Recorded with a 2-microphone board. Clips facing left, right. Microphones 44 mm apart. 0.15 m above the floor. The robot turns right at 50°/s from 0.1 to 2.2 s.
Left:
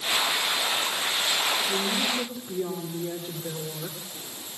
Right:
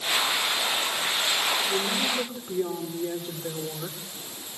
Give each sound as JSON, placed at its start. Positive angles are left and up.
{"t": 1.7, "sound": "a woman speaking", "side_deg": 0, "distance_m": 8.5}